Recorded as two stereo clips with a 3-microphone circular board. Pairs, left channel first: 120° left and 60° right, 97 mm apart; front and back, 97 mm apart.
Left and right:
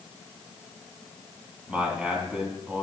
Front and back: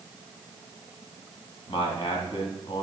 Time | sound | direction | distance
1.7 | a man speaking | 15° left | 2.5 m